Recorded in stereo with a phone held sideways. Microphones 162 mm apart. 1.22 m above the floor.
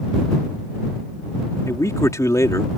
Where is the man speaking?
20° left (ahead or behind).